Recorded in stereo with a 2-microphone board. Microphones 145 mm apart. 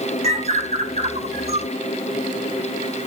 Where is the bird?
50° right (ahead or behind), 0.5 m.